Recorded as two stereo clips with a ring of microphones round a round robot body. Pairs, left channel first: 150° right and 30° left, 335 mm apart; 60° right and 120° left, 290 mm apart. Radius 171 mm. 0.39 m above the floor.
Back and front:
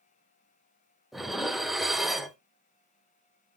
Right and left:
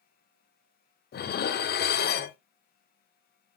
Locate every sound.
1.1 s dishes clattering: 60° right, 0.6 m